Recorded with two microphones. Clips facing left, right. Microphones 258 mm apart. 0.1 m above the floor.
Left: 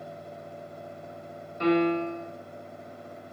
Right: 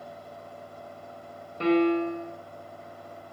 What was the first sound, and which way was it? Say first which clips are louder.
A piano: right 1 dB; 35° right (ahead or behind).